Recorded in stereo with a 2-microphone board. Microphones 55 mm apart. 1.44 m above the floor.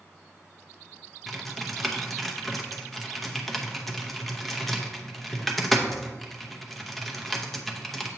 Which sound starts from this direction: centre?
Typing on a keyboard, at 1.3 s.